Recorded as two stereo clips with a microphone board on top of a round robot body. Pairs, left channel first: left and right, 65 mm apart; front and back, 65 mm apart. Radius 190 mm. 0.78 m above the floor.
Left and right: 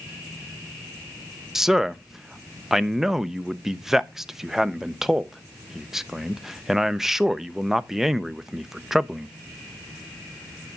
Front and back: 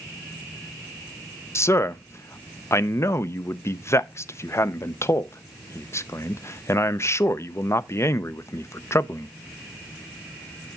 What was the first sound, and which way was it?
A man speaking, 10° right.